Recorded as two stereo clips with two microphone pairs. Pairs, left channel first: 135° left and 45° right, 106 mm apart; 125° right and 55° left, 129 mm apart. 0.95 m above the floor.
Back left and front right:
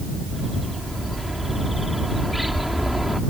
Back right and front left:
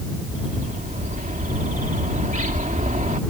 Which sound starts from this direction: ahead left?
A bird, at 0.3 s.